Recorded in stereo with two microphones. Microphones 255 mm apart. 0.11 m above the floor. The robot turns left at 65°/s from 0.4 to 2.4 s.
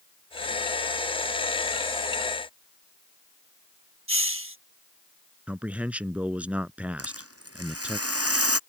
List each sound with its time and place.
4.1 s a hiss: 60° right (ahead or behind)
5.5 s a man speaking: 5° right (ahead or behind)
7.0 s a rattle: 75° right (ahead or behind)